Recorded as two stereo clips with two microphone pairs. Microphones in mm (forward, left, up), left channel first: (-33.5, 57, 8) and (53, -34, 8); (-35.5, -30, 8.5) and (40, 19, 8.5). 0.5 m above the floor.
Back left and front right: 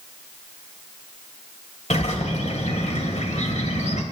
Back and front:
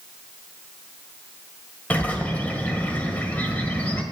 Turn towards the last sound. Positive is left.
turn(degrees=140)